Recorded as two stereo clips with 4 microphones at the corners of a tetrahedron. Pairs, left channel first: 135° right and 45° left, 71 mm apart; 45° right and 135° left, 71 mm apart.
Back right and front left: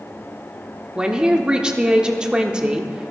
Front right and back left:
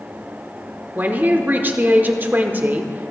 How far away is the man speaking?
About 0.8 m.